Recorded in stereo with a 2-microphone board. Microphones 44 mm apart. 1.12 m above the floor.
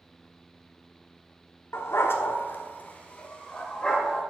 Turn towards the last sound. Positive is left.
turn(degrees=15)  # may be behind; listen again after turning